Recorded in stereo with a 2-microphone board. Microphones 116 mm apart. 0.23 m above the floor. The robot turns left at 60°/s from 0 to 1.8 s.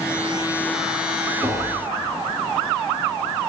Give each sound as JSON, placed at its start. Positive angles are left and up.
{"t": 1.4, "sound": "tapping", "side_deg": 25, "distance_m": 4.5}